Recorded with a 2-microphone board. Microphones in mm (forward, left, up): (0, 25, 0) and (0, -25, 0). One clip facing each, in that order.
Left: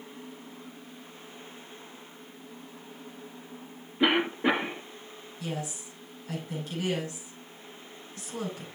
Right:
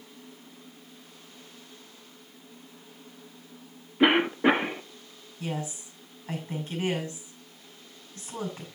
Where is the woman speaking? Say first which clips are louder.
Right 2 dB; 30° right (ahead or behind), 6 m.